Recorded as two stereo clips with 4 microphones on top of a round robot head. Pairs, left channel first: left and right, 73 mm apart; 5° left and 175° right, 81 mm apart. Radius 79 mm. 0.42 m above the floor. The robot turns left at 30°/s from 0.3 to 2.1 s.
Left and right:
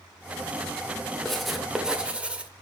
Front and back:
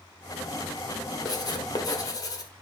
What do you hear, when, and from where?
1.2 s writing: 5° left, 1.9 m; by 2.5 s 20° right, 1.9 m